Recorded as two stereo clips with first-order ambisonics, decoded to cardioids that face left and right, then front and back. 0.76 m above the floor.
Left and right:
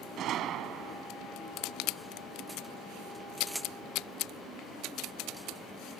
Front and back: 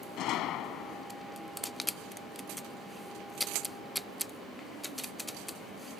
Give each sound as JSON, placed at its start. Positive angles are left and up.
{"t": 0.2, "sound": "a gunshot", "azimuth_deg": -40}